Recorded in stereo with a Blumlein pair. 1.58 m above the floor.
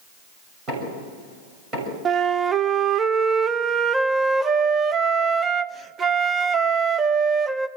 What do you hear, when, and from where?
0.7 s knocking: 20° right, 6.5 m
2.0 s a flute: 20° right, 0.6 m